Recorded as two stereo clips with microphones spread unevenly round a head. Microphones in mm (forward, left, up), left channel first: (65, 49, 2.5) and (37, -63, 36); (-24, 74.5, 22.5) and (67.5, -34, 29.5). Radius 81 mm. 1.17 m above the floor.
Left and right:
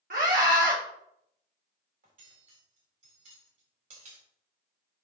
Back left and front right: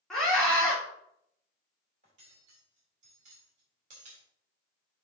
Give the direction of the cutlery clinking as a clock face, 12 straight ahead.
3 o'clock.